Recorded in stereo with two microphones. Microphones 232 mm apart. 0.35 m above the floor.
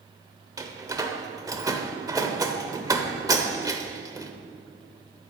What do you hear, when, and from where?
0.6 s a door slam: 15° right (ahead or behind), 0.9 m